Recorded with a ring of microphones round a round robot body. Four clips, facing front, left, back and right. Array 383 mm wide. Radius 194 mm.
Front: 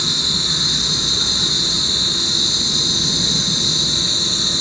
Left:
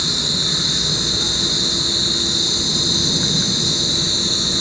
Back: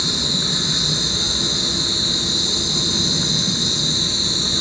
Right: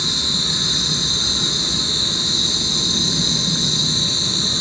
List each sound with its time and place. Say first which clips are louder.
0.0 s an insect: left 1 dB, back 1 dB; 5° left, 1.5 m